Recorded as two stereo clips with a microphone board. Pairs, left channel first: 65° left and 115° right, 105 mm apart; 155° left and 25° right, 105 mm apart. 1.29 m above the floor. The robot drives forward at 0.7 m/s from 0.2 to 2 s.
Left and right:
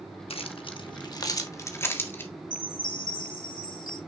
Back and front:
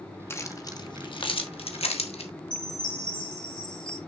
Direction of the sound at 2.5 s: 115° left.